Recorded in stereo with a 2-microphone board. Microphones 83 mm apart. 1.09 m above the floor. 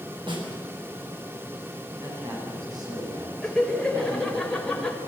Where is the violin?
No violin in this recording.